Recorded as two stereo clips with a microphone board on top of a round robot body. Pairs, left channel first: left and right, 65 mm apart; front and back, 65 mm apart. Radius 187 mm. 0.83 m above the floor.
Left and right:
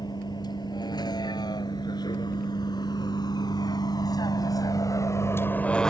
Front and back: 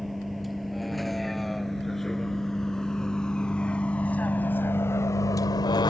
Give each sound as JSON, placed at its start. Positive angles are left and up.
{"t": 0.0, "sound": "a vehicle", "azimuth_deg": 90}